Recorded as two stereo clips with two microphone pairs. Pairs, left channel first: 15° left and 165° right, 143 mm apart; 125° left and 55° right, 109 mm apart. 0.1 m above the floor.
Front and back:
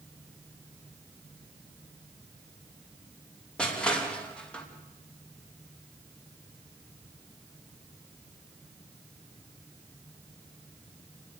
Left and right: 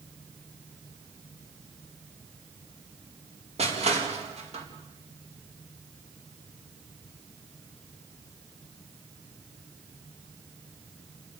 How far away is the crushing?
About 4.5 m.